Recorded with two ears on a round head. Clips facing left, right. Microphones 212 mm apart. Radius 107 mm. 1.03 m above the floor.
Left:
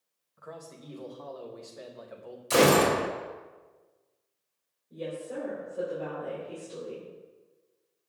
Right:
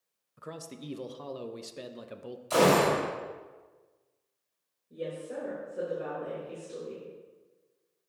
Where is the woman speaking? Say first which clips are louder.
Left 1 dB; 10° right (ahead or behind), 3.5 m.